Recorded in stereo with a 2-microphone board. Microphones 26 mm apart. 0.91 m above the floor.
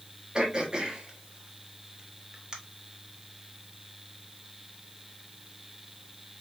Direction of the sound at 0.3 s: 30° right (ahead or behind).